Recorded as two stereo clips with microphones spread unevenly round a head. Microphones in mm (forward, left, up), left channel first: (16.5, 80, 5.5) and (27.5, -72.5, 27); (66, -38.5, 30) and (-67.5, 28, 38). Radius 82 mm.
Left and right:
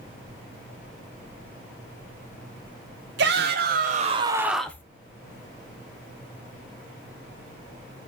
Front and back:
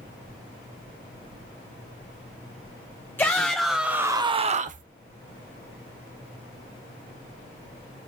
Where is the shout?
100° right, 1.2 m; by 4.8 s 160° left, 0.8 m.